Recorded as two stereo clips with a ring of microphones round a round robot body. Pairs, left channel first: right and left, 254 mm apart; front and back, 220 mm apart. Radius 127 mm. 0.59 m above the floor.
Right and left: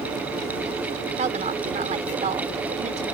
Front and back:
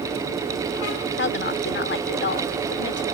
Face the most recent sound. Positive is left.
turn(degrees=30)